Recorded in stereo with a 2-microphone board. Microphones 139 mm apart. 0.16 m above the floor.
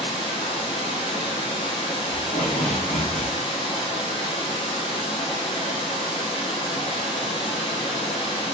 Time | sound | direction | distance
0.0 | running water | 40° left (ahead or behind) | 1.1 m
2.1 | tape being pulled | 65° left (ahead or behind) | 1.5 m